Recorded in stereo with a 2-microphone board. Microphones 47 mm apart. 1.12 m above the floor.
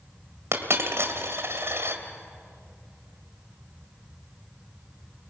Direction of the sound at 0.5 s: 70° right (ahead or behind).